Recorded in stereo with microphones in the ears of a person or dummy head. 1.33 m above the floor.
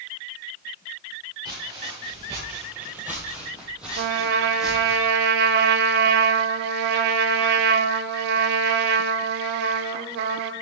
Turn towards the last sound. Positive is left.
turn(degrees=-60)  # may be behind; listen again after turning